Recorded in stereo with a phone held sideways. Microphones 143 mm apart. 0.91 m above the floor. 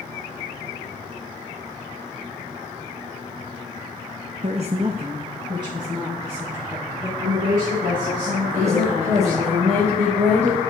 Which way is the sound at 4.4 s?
50° right (ahead or behind).